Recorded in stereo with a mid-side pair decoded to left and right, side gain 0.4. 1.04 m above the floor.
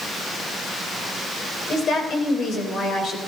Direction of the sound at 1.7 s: 60° left.